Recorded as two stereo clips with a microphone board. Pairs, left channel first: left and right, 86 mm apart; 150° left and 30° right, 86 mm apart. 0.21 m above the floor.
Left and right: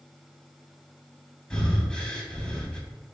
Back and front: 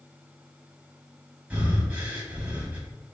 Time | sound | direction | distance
1.5 | breathing | 25° left | 0.5 m